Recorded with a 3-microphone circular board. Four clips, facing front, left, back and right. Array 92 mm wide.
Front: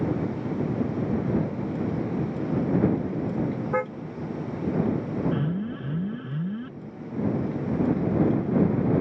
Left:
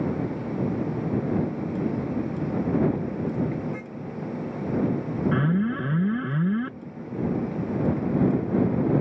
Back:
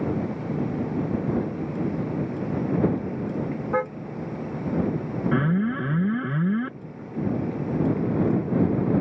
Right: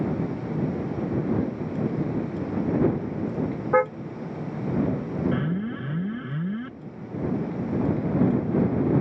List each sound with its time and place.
3.7 s a car horn: 95° right
5.3 s an alarm: 150° left